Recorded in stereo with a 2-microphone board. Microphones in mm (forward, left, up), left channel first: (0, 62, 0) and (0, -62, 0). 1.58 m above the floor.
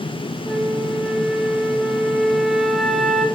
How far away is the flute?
About 0.8 m.